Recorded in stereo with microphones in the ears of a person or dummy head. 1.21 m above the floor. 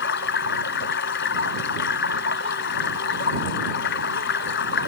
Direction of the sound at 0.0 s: 60° left (ahead or behind).